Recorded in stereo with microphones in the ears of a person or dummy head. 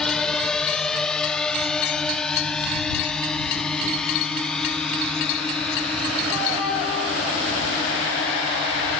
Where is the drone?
5° left (ahead or behind).